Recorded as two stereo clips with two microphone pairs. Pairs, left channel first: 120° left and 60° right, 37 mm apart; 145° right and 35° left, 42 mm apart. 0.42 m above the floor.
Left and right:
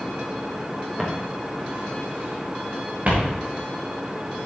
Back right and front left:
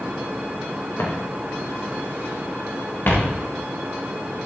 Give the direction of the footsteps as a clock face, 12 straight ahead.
5 o'clock.